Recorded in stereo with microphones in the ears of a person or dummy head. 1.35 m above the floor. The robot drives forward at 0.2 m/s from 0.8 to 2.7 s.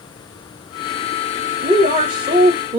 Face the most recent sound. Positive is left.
turn(degrees=-30)  # may be behind; listen again after turning